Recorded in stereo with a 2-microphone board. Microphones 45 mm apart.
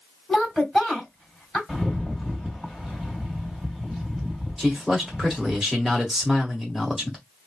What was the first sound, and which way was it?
A woman speaking, 5° left (ahead or behind).